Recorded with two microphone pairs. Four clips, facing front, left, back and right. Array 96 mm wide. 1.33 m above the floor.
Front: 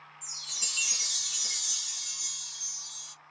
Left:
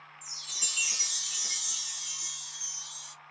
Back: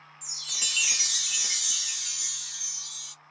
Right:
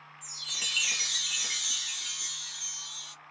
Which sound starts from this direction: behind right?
A chime, at 0.2 s.